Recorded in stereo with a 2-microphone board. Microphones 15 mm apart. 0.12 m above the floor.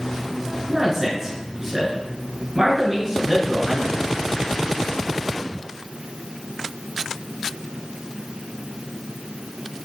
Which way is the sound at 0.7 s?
30° right (ahead or behind).